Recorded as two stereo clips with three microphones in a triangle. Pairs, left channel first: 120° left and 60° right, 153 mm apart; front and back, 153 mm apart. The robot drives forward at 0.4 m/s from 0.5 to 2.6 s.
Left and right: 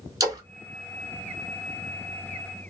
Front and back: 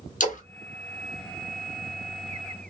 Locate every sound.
0.2 s a splash: straight ahead, 1.1 m